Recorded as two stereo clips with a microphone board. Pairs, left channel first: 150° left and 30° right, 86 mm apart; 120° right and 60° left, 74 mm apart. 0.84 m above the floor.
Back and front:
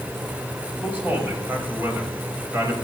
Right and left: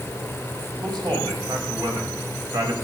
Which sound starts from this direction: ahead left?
A man speaking, at 0.8 s.